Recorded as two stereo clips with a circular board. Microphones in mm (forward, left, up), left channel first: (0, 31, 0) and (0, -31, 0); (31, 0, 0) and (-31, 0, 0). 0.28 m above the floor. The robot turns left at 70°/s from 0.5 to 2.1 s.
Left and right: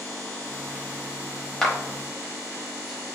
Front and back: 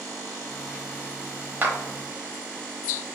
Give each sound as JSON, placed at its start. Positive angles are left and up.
{"t": 1.6, "sound": "a clap", "azimuth_deg": 170, "distance_m": 0.8}